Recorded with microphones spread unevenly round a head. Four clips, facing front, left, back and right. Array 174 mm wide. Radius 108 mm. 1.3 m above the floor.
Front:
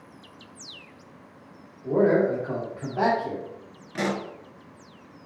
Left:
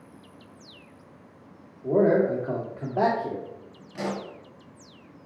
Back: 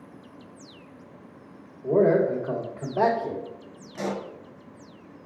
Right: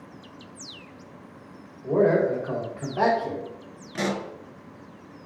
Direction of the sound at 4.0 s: 30° right.